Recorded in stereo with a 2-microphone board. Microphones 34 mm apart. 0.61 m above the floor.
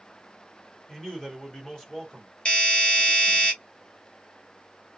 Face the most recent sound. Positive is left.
turn(degrees=35)  # may be behind; listen again after turning